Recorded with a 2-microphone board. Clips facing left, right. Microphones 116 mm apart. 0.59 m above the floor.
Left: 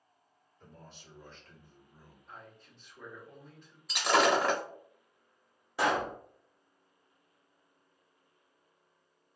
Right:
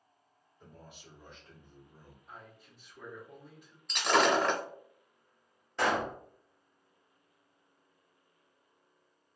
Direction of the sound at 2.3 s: 10° right (ahead or behind).